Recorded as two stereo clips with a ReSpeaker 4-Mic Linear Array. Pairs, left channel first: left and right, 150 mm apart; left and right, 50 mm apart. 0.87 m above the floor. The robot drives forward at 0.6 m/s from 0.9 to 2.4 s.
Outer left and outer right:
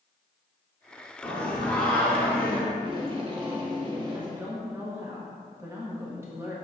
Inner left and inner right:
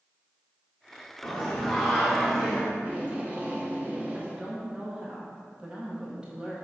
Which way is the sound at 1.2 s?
5° left (ahead or behind).